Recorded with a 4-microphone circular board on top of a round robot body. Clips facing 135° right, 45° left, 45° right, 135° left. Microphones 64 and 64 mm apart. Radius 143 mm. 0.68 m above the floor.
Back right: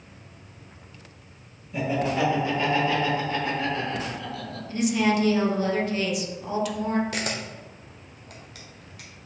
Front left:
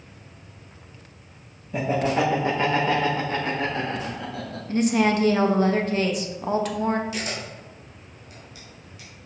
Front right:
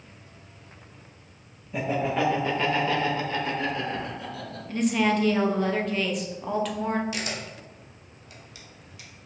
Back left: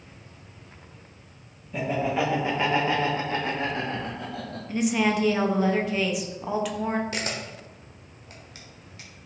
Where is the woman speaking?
55° left, 1.1 m.